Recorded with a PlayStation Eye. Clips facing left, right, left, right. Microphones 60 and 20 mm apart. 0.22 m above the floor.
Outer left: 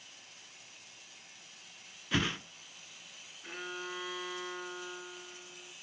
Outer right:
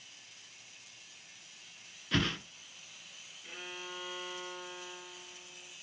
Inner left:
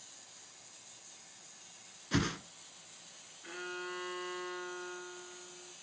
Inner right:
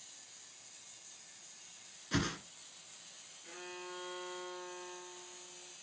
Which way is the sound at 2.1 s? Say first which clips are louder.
Even, inner left 2 dB; 5° left (ahead or behind).